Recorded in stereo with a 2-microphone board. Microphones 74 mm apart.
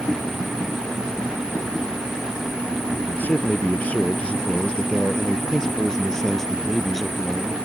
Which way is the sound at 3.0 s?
25° left (ahead or behind).